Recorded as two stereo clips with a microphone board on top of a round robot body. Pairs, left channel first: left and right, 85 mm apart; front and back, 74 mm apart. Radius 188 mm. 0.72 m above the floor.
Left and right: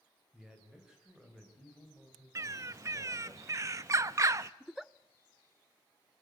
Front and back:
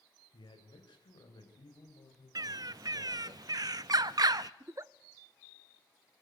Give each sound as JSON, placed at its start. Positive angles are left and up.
{"t": 0.3, "sound": "a man speaking", "azimuth_deg": -10, "distance_m": 4.0}
{"t": 2.4, "sound": "a bird", "azimuth_deg": -145, "distance_m": 0.5}
{"t": 4.6, "sound": "a giggle", "azimuth_deg": -175, "distance_m": 0.7}